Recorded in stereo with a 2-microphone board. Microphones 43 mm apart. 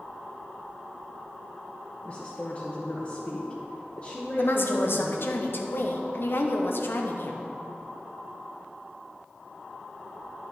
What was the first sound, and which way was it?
A woman speaking, 30° left (ahead or behind).